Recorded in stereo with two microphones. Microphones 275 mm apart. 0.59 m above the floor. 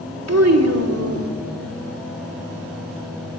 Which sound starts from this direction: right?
A child speaking, at 0.3 s.